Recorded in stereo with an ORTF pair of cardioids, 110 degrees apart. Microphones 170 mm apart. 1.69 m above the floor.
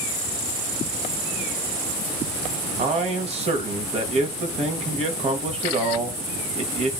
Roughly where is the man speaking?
Ahead right.